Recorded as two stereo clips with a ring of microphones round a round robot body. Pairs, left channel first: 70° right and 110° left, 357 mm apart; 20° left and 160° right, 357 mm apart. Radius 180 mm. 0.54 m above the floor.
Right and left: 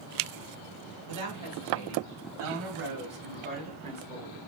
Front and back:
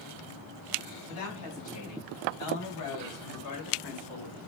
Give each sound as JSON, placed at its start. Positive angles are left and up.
{"t": 1.1, "sound": "a woman speaking", "azimuth_deg": 70, "distance_m": 5.0}